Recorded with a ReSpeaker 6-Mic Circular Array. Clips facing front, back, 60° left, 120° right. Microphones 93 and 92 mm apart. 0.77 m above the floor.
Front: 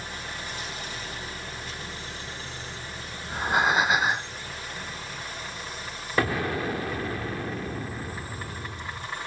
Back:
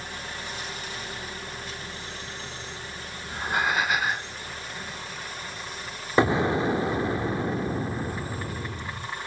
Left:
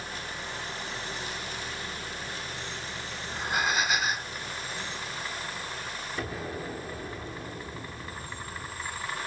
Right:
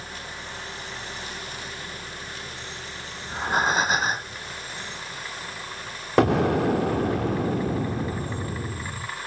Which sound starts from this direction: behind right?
An explosion, at 6.2 s.